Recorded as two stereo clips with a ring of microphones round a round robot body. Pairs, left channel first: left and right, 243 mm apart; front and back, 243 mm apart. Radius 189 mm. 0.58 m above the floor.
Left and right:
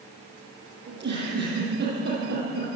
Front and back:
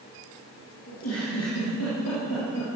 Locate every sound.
0.9 s a giggle: 45° right, 9.5 m